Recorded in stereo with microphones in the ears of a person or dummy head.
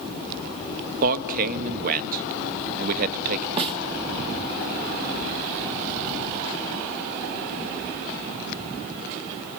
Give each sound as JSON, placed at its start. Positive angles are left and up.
{"t": 1.0, "sound": "a man speaking", "side_deg": -55, "distance_m": 0.8}
{"t": 3.6, "sound": "a snare drum", "side_deg": -35, "distance_m": 0.9}